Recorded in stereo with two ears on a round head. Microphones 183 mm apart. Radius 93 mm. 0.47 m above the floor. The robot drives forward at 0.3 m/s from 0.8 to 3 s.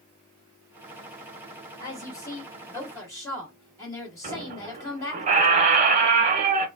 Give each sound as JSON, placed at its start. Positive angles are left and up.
{"t": 1.8, "sound": "a woman speaking", "side_deg": 20, "distance_m": 1.7}
{"t": 4.2, "sound": "a squeak", "side_deg": -35, "distance_m": 0.9}